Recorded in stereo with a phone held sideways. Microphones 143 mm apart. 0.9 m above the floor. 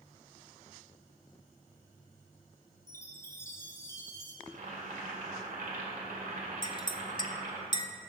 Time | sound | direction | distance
2.9 | a chime | 20° left (ahead or behind) | 1.2 m
4.5 | boiling | 80° right | 2 m
6.6 | a clink | 30° left (ahead or behind) | 0.6 m